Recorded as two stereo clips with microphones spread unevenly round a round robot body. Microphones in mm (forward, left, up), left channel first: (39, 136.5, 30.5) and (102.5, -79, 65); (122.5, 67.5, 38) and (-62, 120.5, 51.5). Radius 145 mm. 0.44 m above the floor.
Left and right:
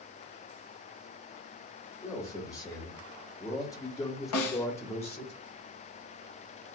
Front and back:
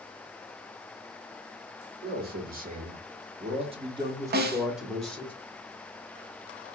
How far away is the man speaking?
About 1.8 m.